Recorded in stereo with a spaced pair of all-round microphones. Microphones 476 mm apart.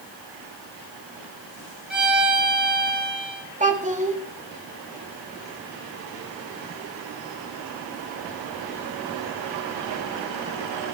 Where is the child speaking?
15° right (ahead or behind), 1.7 m.